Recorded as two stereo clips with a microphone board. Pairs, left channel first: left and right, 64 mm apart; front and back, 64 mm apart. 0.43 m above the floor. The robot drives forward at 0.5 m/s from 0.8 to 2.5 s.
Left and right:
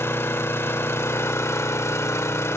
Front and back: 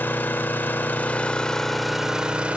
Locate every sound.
0.0 s an engine running: 50° left, 1.1 m; by 2.6 s 115° left, 1.0 m